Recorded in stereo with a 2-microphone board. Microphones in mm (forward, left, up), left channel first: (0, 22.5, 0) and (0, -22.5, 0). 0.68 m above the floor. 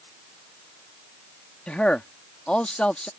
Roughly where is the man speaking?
Left.